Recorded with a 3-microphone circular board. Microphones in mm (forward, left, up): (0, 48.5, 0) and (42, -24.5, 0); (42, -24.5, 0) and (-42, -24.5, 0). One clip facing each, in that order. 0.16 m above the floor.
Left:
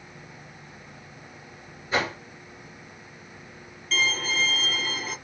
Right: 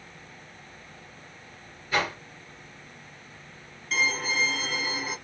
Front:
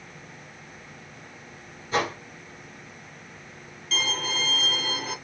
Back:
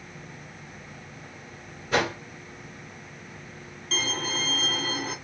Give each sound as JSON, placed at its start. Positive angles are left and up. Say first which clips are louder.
{"t": 1.9, "sound": "a whoosh", "louder": "left 1 dB, back 1 dB", "azimuth_deg": -175, "distance_m": 2.0}
{"t": 3.9, "sound": "a violin", "louder": "even, front 1 dB", "azimuth_deg": -140, "distance_m": 2.5}